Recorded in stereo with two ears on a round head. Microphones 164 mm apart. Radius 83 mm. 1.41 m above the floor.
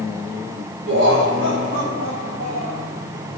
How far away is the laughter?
About 6 m.